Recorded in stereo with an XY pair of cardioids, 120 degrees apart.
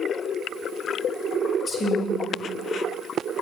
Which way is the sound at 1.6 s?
35° left.